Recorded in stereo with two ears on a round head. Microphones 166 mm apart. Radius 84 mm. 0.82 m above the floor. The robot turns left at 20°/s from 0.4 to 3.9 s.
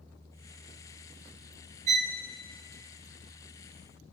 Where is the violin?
35° right (ahead or behind), 0.9 m; by 2.2 s 40° right (ahead or behind), 0.9 m.